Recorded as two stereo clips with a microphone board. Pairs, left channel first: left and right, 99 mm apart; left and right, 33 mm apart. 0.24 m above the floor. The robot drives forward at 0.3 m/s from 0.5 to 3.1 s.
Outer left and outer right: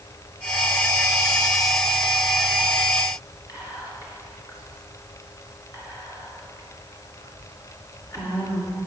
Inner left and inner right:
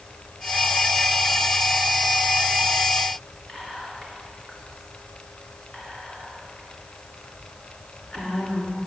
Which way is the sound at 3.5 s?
40° left (ahead or behind).